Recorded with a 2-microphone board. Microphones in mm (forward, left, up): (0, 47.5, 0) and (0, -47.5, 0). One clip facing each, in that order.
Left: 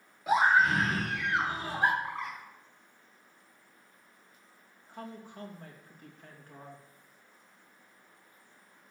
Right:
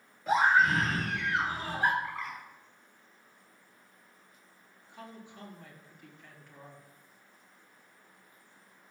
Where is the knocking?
I don't hear knocking.